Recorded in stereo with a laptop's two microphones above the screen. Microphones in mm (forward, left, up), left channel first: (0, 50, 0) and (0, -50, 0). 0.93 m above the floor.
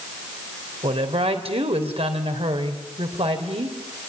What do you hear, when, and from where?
0.8 s a woman speaking: 85° right, 3.5 m